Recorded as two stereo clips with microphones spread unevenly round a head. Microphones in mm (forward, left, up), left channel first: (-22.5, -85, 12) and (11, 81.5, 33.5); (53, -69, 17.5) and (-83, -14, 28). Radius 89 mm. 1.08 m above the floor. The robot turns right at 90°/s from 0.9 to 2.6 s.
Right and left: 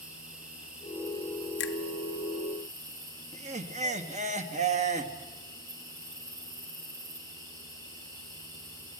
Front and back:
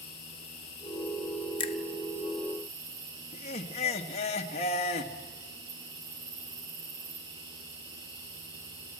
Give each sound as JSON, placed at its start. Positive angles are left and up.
{"t": 0.0, "sound": "an insect", "azimuth_deg": -5, "distance_m": 7.0}
{"t": 1.6, "sound": "a finger snap", "azimuth_deg": -80, "distance_m": 1.5}
{"t": 3.3, "sound": "laughter", "azimuth_deg": 25, "distance_m": 2.0}